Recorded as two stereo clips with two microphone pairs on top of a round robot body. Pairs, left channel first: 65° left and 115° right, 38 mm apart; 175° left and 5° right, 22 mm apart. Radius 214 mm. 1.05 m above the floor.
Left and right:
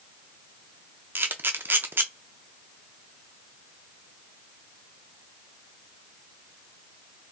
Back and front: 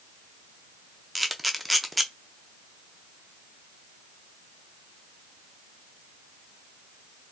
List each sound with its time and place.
1.1 s a camera shutter: 95° right, 0.5 m